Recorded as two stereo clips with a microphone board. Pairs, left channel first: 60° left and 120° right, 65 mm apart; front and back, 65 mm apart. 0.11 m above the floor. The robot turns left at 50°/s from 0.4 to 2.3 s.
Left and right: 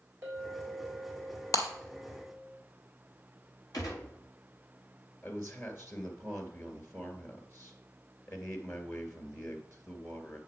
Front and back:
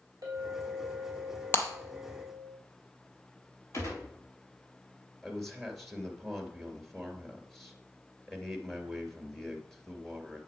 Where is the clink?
175° left, 4 m; by 2.5 s 80° left, 4 m.